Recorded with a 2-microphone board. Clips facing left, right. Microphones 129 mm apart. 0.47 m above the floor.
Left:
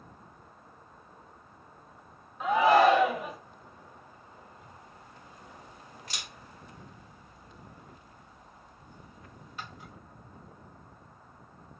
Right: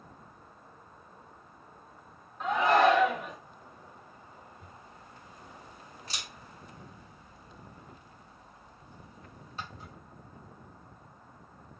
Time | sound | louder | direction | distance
2.4 | a shout | left 3 dB | 5° left (ahead or behind) | 0.8 m
4.6 | a camera shutter | even | 30° right (ahead or behind) | 1.4 m